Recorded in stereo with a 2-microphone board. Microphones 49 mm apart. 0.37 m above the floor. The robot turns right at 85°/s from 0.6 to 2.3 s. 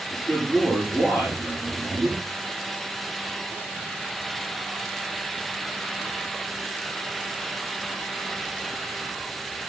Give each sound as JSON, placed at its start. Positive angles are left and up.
{"t": 0.1, "sound": "a man speaking", "azimuth_deg": 155, "distance_m": 6.5}